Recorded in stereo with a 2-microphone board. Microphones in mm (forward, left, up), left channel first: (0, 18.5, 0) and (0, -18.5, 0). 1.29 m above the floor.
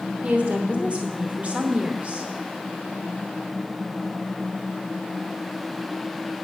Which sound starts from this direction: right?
A woman speaking, at 0.2 s.